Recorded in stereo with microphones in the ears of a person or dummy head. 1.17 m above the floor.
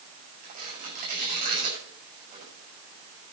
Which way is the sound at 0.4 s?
45° right (ahead or behind).